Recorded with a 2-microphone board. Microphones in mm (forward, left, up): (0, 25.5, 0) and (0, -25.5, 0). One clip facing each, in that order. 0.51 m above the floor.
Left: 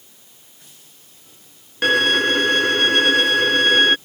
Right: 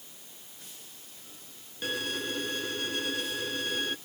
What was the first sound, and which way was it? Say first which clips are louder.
A violin: left 17 dB; 80° left.